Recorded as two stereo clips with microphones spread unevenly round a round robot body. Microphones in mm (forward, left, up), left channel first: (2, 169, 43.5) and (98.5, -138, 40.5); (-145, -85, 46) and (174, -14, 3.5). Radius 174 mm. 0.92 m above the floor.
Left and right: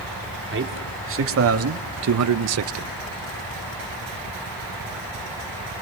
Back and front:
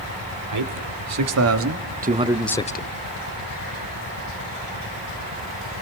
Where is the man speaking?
15° right, 3.5 m; by 2.9 s 115° right, 1.2 m.